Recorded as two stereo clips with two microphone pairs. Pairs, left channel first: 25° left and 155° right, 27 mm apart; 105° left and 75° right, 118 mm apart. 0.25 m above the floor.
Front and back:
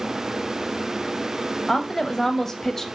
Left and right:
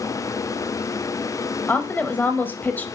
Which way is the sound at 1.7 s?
75° left.